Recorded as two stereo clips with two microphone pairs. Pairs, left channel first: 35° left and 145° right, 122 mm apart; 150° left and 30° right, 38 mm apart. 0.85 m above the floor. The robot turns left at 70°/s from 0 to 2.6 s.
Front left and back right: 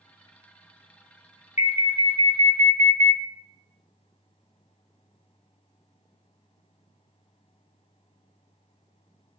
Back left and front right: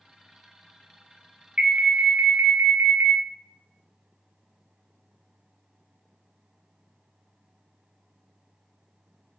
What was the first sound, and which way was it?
An alarm, 40° left.